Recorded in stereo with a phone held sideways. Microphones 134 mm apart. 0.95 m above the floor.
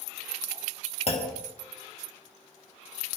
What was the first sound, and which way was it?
A clunk, 50° left (ahead or behind).